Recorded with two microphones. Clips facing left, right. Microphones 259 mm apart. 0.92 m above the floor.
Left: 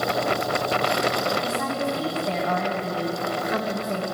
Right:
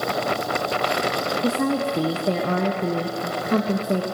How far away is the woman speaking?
About 0.6 m.